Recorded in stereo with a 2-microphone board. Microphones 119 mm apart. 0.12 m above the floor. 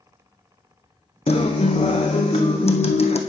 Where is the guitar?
65° left (ahead or behind), 1.0 m.